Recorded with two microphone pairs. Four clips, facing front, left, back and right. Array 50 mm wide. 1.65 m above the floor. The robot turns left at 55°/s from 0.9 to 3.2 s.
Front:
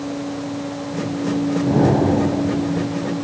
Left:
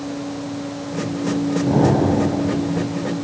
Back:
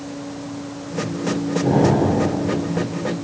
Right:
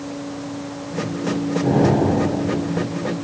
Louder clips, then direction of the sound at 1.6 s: Even, even; 135° right.